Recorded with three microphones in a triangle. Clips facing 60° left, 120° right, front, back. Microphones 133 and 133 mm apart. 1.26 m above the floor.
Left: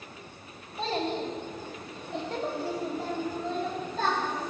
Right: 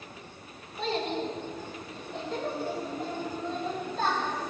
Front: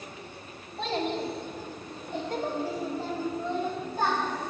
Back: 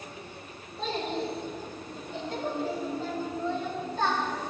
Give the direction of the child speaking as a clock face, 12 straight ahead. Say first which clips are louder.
Even, front 2 dB; 12 o'clock.